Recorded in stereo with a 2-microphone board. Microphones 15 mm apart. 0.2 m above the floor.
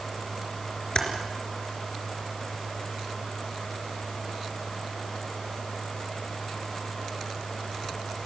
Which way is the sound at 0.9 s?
55° left (ahead or behind).